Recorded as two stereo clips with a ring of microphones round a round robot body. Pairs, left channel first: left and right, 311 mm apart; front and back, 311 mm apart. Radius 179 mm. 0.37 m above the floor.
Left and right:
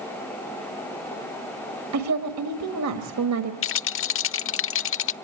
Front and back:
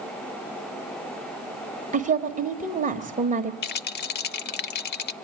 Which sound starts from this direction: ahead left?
A rattle, at 3.6 s.